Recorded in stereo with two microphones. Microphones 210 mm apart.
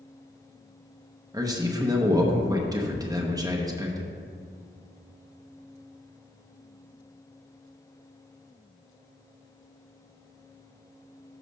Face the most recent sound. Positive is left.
turn(degrees=-15)  # may be behind; listen again after turning